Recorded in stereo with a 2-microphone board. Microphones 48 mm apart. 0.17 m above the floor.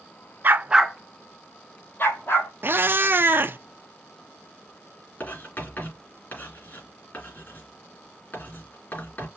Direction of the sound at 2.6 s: 45° right (ahead or behind).